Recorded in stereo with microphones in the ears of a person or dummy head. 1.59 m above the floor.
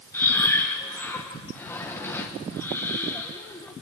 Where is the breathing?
10° left (ahead or behind), 1.5 m.